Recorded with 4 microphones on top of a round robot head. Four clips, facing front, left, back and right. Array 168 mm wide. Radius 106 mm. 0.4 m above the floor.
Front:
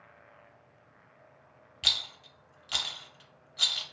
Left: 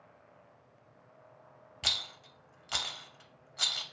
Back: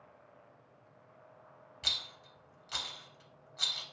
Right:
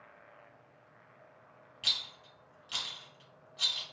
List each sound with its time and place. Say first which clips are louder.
1.8 s a rattle: left 4 dB, front 5 dB; 65° left, 0.6 m